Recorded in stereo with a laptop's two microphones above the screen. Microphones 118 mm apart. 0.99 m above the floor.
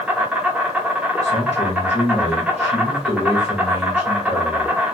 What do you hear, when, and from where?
0.0 s an insect: 10° right (ahead or behind), 0.8 m
1.2 s a man speaking: 55° left (ahead or behind), 1.0 m